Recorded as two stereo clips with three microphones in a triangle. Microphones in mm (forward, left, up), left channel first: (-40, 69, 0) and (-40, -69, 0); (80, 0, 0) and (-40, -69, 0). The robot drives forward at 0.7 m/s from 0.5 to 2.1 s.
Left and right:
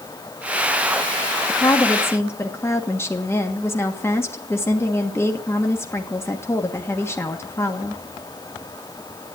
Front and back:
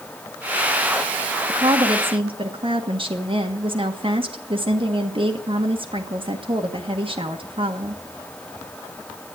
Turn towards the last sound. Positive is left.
turn(degrees=165)